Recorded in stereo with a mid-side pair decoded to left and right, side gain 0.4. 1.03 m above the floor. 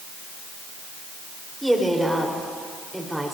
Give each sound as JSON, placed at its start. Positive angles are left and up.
{"t": 1.6, "sound": "a woman speaking", "azimuth_deg": -5, "distance_m": 4.0}